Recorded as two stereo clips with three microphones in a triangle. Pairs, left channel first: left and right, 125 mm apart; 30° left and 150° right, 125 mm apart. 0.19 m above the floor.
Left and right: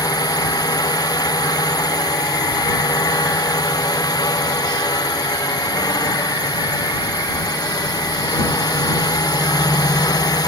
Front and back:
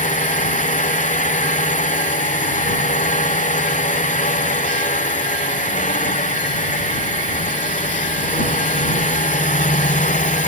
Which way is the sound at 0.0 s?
30° left.